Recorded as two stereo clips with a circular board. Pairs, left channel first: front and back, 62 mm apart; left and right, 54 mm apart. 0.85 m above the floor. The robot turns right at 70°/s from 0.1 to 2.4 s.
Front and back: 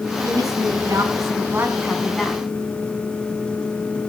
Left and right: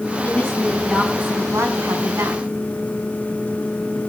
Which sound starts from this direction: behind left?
A woman speaking, at 0.2 s.